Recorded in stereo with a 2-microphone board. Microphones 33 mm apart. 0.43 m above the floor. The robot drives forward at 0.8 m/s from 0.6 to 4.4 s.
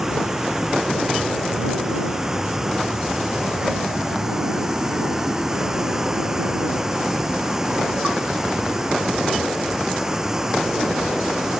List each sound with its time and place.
0.0 s running water: 10° right (ahead or behind); by 11.6 s 15° right (ahead or behind)